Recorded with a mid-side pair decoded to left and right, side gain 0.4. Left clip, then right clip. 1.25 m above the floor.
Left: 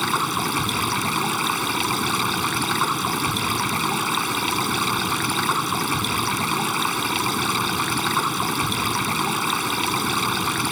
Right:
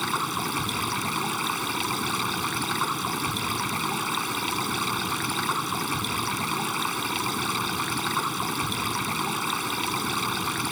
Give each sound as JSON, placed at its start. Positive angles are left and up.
{"t": 0.0, "sound": "running water", "azimuth_deg": 40}